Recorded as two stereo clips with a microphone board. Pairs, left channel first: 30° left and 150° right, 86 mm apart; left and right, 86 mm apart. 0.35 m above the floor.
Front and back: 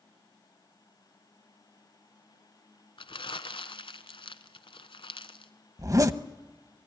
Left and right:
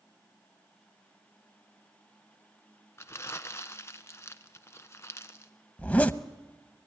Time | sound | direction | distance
3.0 | crumpling | 35° left | 1.0 m
5.8 | a zipper | 165° left | 0.7 m